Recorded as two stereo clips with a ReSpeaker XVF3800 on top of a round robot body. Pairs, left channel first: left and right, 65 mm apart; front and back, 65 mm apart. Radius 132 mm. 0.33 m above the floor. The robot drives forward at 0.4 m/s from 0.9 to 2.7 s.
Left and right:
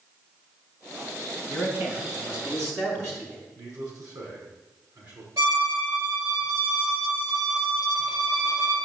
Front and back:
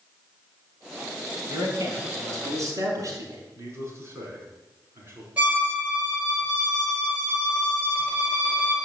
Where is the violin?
110° right, 4.5 m.